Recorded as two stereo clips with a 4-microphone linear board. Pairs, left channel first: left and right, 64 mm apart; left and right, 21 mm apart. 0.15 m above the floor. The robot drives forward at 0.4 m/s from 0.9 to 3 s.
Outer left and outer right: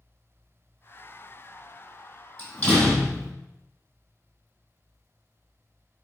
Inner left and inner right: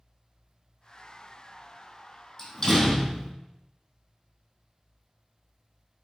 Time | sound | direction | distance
2.4 | a door slam | 15° left (ahead or behind) | 3.5 m